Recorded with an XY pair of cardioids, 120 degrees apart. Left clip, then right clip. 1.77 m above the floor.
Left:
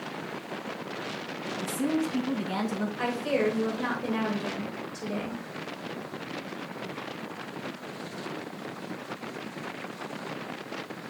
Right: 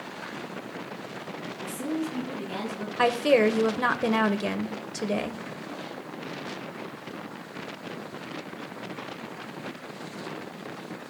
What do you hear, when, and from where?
1.6 s a woman speaking: 35° left, 2 m
3.0 s a woman speaking: 60° right, 1.3 m